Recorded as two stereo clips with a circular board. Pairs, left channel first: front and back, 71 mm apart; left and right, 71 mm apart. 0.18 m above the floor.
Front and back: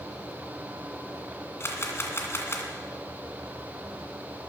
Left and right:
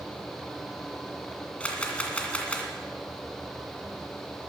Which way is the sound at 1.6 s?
25° left.